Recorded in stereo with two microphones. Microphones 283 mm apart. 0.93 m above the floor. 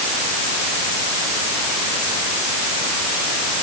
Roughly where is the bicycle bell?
I don't hear a bicycle bell.